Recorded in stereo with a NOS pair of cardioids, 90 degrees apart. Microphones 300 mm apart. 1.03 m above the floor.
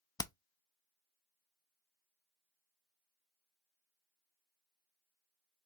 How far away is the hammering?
About 0.5 m.